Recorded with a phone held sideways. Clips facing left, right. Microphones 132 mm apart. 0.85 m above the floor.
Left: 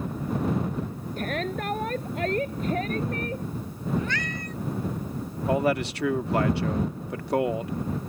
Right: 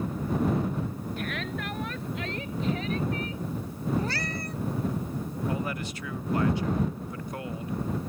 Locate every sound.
1.2 s a shout: 40° left (ahead or behind); by 3.5 s 50° left (ahead or behind)
4.0 s a cat meowing: 35° right (ahead or behind)
5.5 s a man speaking: 70° left (ahead or behind)